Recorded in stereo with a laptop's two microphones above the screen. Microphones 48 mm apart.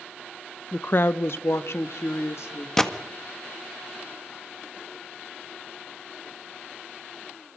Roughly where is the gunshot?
Centre.